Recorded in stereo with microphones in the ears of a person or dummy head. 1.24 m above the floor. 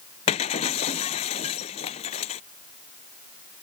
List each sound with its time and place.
0.3 s breaking glass: 40° left (ahead or behind)